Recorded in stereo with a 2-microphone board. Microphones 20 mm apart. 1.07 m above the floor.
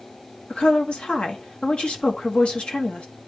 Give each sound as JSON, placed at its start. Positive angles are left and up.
{"t": 0.5, "sound": "a woman speaking", "side_deg": 70, "distance_m": 1.4}